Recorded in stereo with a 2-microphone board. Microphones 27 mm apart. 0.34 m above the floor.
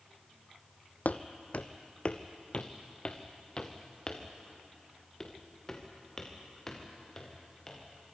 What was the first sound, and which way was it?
Footsteps, 70° left (ahead or behind).